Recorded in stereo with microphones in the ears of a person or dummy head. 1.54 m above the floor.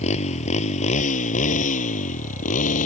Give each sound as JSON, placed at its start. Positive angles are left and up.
{"t": 0.0, "sound": "a motorcycle", "side_deg": 40}